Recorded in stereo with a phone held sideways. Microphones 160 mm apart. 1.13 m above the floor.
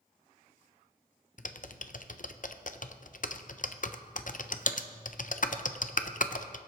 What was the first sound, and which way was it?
Typing on a keyboard, 60° left (ahead or behind).